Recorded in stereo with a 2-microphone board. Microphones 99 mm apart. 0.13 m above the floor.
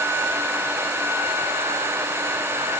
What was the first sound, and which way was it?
Only background noise.